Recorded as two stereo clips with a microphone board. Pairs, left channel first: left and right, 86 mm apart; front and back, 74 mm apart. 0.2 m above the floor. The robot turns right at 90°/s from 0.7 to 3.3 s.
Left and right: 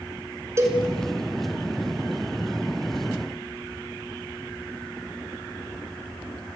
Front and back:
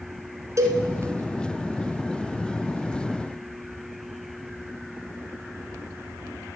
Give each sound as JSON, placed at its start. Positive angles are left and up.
{"t": 0.6, "sound": "a cowbell", "azimuth_deg": -140, "distance_m": 1.4}